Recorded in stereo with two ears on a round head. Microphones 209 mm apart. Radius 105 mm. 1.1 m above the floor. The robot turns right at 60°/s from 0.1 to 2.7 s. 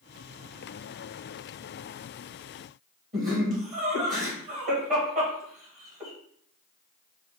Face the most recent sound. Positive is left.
turn(degrees=-35)  # may be behind; listen again after turning